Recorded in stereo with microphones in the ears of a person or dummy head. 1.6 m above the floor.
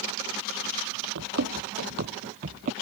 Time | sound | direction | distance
1.1 | running footsteps | 55° right (ahead or behind) | ?